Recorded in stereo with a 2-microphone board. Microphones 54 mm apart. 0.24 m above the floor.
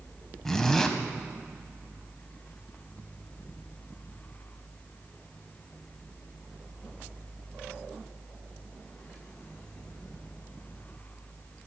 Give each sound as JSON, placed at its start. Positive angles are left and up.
{"t": 0.5, "sound": "a zipper", "side_deg": 10, "distance_m": 0.5}